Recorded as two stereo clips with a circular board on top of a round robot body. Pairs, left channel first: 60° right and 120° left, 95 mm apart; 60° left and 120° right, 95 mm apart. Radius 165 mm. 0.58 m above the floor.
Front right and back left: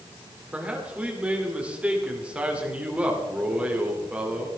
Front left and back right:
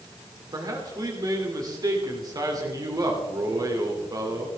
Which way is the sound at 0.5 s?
165° right.